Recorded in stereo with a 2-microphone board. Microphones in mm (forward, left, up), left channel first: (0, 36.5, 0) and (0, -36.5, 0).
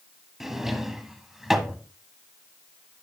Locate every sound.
0.4 s a drawer: 5° right (ahead or behind), 1.3 m